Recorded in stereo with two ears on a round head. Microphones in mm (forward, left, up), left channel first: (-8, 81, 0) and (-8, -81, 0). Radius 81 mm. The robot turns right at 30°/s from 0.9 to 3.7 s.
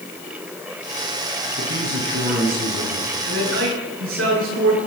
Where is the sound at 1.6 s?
130° right, 7.5 m; by 3.1 s 85° right, 7.5 m.